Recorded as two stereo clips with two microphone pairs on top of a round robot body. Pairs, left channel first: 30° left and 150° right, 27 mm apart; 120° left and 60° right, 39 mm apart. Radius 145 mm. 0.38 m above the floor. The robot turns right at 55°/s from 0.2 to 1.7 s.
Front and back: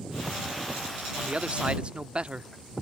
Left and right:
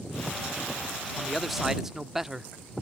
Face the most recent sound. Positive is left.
turn(degrees=-130)